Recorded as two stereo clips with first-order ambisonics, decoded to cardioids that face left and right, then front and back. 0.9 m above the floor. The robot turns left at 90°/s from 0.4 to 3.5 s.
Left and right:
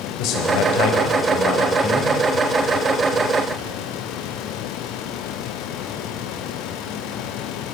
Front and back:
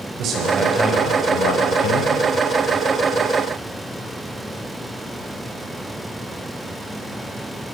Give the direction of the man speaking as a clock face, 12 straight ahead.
8 o'clock.